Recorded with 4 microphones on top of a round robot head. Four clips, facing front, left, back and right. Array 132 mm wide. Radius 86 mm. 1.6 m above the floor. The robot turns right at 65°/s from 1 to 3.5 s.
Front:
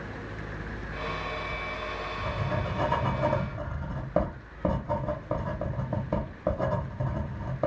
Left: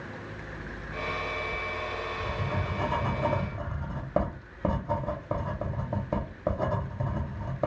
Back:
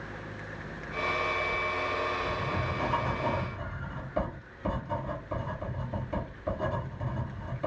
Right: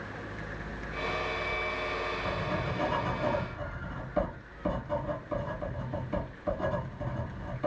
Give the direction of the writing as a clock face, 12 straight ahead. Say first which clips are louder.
Even, back 4 dB; 3 o'clock.